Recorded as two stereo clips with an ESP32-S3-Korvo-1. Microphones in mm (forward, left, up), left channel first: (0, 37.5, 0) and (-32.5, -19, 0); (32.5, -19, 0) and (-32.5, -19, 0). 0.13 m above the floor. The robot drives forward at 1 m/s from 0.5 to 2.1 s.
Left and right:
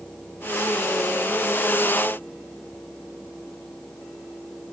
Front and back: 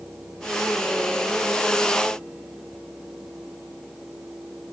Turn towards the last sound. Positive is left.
No sound to turn to.